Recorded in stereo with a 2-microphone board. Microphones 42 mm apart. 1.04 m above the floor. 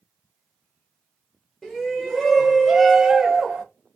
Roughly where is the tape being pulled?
I don't hear tape being pulled.